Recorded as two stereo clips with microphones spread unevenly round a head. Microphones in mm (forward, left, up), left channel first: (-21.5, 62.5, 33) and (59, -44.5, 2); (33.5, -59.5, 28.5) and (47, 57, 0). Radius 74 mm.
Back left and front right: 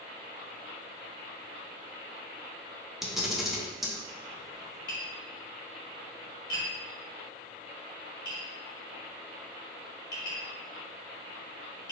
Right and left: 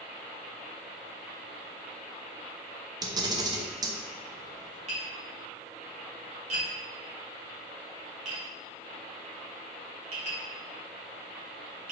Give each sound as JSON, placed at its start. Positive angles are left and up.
{"t": 3.0, "sound": "a camera shutter", "azimuth_deg": 30, "distance_m": 0.9}
{"t": 4.9, "sound": "tapping", "azimuth_deg": 65, "distance_m": 2.0}